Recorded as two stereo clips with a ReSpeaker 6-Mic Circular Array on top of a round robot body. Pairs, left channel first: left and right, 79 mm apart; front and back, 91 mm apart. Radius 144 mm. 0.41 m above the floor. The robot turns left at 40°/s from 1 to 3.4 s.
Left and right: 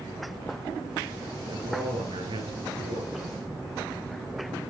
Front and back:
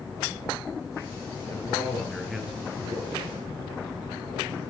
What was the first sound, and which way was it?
A man speaking, 60° right.